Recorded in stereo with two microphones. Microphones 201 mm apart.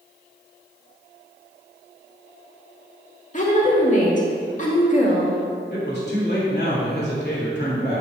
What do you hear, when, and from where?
3.3 s a woman speaking: 40° left (ahead or behind), 1.9 m
5.7 s a man speaking: 55° left (ahead or behind), 2.5 m